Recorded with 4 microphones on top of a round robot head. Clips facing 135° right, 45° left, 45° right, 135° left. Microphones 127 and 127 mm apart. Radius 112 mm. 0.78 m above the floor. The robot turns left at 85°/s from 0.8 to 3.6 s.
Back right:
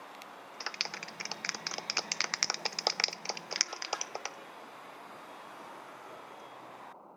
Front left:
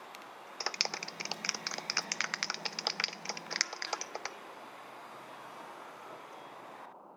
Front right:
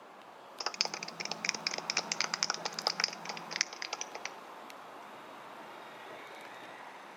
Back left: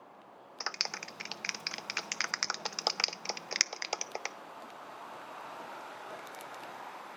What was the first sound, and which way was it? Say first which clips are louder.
A clap: front left 5 dB, front right 2 dB; 25° left.